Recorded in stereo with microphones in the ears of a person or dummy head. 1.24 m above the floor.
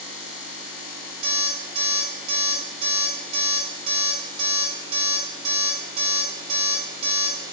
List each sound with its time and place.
1.2 s an alarm clock: 40° right (ahead or behind), 0.9 m